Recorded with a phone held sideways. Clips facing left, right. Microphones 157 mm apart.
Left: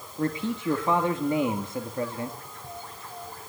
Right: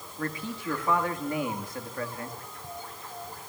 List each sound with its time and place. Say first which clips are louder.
0.2 s a man speaking: left 7 dB; 25° left (ahead or behind), 2 m